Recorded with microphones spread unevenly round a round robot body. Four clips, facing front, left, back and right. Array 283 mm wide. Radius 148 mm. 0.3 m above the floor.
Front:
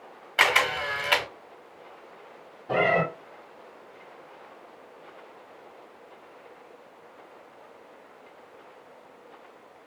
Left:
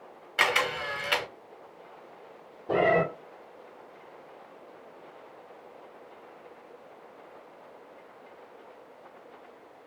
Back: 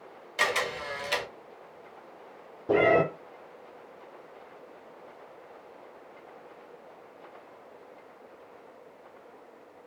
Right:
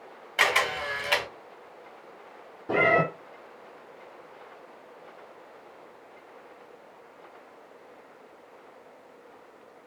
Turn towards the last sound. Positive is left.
turn(degrees=-170)